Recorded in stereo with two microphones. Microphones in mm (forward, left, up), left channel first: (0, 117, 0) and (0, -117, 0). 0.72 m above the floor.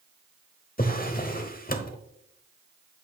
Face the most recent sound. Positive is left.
turn(degrees=40)  # may be behind; listen again after turning